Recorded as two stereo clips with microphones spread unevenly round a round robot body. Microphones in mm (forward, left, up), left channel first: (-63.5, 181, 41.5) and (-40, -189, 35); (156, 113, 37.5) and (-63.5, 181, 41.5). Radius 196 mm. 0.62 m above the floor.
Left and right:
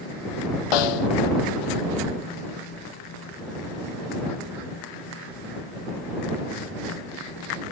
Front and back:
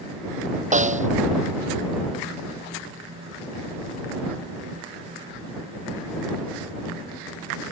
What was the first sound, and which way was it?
A snare drum, 105° left.